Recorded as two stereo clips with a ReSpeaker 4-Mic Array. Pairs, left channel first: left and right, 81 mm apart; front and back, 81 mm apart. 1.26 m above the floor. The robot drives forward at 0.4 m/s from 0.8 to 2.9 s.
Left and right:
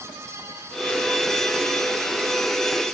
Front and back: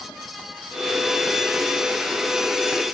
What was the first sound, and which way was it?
Only background noise.